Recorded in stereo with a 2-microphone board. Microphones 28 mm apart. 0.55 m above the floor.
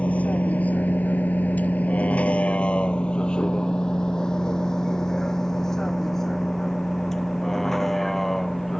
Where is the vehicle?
50° left (ahead or behind); by 8.8 s 15° left (ahead or behind).